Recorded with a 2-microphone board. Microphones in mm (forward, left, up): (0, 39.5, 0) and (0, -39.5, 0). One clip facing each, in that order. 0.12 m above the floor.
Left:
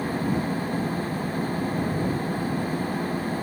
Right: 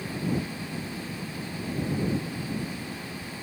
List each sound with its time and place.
0.0 s an engine running: 45° left (ahead or behind)